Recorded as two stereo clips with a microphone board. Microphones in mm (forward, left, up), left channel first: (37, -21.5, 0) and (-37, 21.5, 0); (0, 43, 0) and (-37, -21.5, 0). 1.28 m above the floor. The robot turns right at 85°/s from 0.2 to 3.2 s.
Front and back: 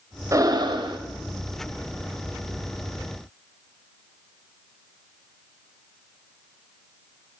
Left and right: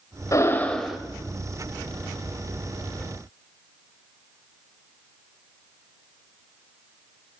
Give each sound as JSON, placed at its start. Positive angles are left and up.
{"t": 0.3, "sound": "breathing", "azimuth_deg": 100, "distance_m": 0.6}